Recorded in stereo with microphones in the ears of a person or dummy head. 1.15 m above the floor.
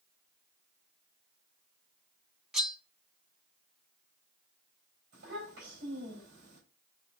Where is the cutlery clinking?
Centre (ahead or behind), 0.6 m.